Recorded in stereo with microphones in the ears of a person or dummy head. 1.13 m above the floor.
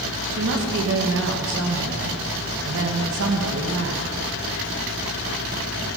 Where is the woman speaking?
65° right (ahead or behind), 1.4 m.